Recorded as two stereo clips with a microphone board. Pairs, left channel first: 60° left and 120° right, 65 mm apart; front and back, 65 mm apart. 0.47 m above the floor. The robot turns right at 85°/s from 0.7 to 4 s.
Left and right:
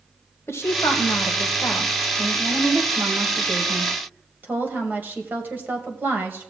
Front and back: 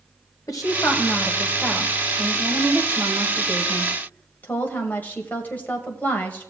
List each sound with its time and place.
0.5 s a woman speaking: 15° left, 2 m; by 6.5 s 65° right, 2 m